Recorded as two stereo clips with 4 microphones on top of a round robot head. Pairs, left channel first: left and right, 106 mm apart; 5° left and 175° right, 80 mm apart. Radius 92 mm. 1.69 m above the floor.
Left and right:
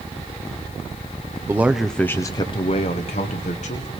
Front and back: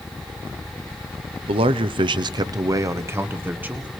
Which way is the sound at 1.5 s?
165° right.